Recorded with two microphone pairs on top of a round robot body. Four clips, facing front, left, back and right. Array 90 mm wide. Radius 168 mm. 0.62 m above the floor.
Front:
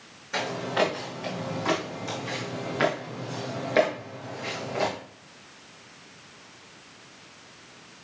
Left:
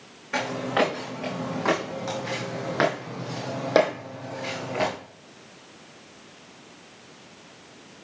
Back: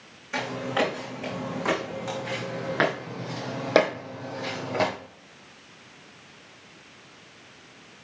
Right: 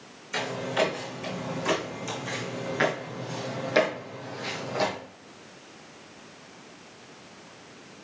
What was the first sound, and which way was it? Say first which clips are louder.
Footsteps: left 3 dB, even; 95° left.